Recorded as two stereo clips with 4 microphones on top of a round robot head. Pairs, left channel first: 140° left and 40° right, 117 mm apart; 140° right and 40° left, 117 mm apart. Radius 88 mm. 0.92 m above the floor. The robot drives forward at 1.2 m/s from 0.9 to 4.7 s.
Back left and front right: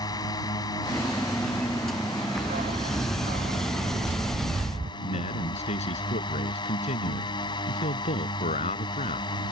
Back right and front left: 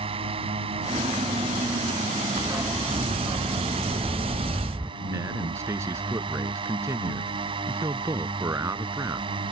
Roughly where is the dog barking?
Ahead right.